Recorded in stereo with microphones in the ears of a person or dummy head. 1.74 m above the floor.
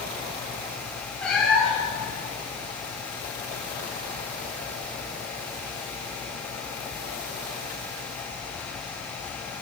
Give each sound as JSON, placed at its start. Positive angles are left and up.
{"t": 1.2, "sound": "a cat meowing", "side_deg": 0, "distance_m": 1.9}